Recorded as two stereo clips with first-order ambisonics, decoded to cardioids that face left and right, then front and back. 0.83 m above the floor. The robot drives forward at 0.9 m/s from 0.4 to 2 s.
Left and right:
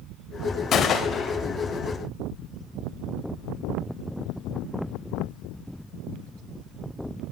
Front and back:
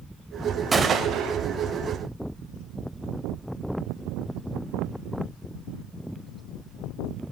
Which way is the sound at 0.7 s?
115° left.